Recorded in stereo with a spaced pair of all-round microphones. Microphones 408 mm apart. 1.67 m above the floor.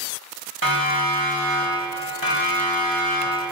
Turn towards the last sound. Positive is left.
turn(degrees=-55)  # may be behind; listen again after turning